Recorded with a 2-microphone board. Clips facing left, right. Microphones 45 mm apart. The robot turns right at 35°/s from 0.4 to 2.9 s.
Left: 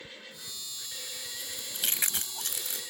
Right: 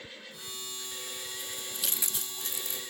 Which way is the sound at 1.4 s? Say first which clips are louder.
Left 4 dB; 30° left (ahead or behind).